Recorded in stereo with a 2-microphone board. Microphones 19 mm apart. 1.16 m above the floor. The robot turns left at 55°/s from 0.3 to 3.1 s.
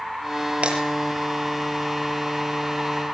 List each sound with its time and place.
0.6 s breaking glass: 80° right, 8.5 m; by 0.8 s 70° right (ahead or behind), 8.5 m